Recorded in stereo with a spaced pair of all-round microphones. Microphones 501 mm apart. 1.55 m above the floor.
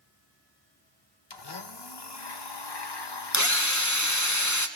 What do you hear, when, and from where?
1.3 s a blender: 55° left (ahead or behind), 0.9 m
3.3 s a drill: 35° left (ahead or behind), 0.8 m